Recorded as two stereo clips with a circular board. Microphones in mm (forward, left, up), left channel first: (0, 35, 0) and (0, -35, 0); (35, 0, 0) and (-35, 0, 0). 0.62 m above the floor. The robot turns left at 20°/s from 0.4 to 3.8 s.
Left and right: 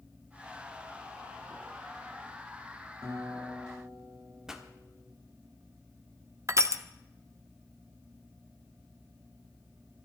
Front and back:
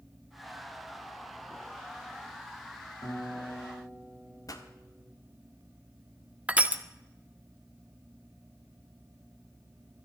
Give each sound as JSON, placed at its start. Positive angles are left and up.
{"t": 3.0, "sound": "a guitar", "azimuth_deg": -40, "distance_m": 5.0}
{"t": 4.5, "sound": "a pop", "azimuth_deg": -10, "distance_m": 1.4}
{"t": 6.5, "sound": "crushing", "azimuth_deg": -115, "distance_m": 0.9}